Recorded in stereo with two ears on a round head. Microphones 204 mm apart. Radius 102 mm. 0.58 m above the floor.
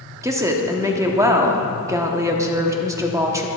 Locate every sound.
0.2 s a woman speaking: 15° right (ahead or behind), 1.0 m